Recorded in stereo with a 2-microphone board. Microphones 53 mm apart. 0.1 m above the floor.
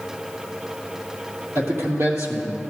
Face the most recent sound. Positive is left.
turn(degrees=-60)  # may be behind; listen again after turning